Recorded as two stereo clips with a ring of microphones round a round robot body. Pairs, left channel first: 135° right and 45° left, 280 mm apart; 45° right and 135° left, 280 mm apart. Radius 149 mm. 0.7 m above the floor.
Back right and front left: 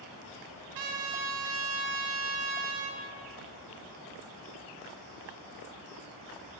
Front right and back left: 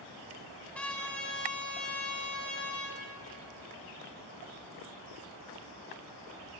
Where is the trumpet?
40° left, 1.8 m.